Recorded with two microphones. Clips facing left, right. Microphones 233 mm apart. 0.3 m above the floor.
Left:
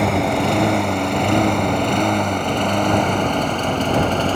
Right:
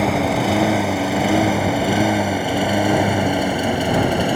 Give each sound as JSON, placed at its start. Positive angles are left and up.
{"t": 0.0, "sound": "a lawn mower", "side_deg": 0}